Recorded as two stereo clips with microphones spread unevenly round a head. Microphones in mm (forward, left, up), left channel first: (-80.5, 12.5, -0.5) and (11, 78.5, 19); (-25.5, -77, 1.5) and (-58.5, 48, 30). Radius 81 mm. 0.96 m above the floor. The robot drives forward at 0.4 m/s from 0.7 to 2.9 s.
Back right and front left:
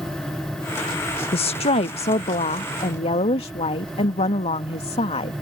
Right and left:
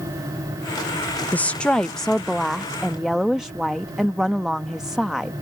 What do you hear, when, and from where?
1.3 s a woman speaking: 145° right; by 5.3 s 165° right